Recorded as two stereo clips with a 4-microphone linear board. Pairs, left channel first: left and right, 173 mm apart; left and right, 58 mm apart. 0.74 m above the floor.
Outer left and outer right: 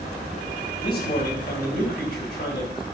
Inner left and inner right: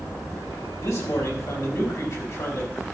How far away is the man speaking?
About 4 m.